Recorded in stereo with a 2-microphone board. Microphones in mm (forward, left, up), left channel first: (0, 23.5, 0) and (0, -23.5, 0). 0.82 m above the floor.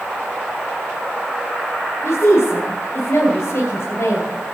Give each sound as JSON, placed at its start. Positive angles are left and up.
{"t": 2.0, "sound": "a woman speaking", "side_deg": 80, "distance_m": 3.5}